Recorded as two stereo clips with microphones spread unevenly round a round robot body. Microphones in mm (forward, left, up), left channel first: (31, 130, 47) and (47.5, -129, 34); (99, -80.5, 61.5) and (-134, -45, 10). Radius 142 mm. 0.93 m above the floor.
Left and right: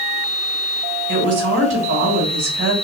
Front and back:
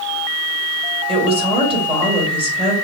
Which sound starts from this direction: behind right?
A woman speaking, at 1.1 s.